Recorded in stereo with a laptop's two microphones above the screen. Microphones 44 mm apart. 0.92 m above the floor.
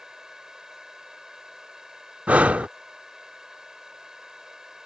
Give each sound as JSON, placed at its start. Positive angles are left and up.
{"t": 0.0, "sound": "a fan", "side_deg": -15}
{"t": 2.3, "sound": "breathing", "side_deg": -30}